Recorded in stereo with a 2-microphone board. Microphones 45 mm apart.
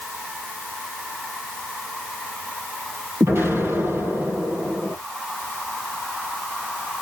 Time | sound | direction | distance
3.2 | an explosion | 70° right (ahead or behind) | 8 m